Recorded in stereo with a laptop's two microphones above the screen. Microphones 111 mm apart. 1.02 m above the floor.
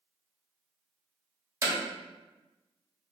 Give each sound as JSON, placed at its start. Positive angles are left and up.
{"t": 1.6, "sound": "hammering", "side_deg": -35, "distance_m": 1.8}